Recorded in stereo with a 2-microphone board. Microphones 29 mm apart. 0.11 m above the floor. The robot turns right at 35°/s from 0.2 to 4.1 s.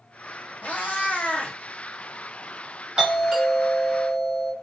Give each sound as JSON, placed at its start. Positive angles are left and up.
{"t": 0.6, "sound": "a cat meowing", "azimuth_deg": 95, "distance_m": 0.9}
{"t": 3.0, "sound": "a doorbell", "azimuth_deg": -125, "distance_m": 1.8}